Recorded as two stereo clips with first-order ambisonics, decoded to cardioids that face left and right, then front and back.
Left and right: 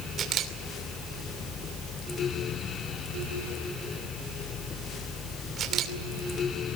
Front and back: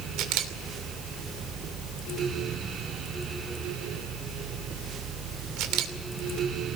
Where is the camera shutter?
150° right, 2.5 m.